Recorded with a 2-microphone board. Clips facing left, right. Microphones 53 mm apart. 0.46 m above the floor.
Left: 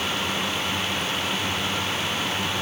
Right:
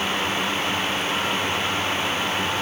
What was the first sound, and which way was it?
Only background noise.